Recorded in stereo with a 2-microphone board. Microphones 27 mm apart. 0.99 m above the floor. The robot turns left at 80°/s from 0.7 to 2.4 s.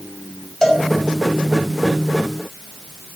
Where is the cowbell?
20° left (ahead or behind), 2.5 m; by 0.8 s 30° left (ahead or behind), 2.5 m.